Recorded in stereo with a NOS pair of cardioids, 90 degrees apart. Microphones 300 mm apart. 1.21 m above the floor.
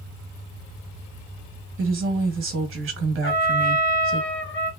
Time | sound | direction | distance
1.8 | a woman speaking | 45° right | 1.1 m
3.2 | a trumpet | 40° left | 1.0 m